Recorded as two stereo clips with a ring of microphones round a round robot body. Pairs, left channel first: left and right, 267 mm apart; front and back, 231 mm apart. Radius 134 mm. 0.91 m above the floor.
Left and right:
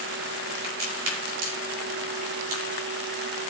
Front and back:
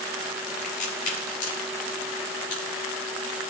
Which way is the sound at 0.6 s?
55° right.